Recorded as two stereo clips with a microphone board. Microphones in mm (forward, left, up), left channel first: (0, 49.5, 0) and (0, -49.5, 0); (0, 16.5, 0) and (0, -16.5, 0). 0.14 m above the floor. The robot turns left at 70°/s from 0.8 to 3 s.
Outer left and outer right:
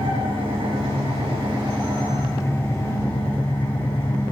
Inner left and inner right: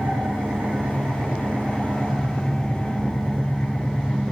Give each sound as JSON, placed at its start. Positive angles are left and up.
{"t": 0.0, "sound": "an engine running", "azimuth_deg": -65, "distance_m": 4.5}